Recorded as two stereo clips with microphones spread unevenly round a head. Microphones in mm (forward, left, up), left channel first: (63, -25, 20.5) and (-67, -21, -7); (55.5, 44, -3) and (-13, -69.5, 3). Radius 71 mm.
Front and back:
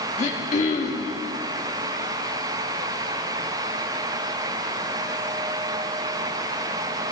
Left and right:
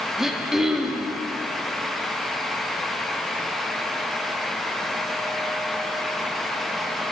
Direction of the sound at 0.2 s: 35° right.